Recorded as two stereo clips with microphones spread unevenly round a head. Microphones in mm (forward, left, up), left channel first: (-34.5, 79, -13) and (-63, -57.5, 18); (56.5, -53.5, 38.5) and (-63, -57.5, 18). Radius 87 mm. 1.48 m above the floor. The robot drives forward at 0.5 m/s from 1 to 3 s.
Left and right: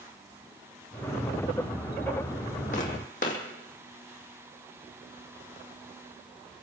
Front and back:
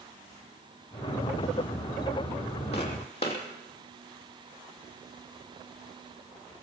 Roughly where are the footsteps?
Ahead left.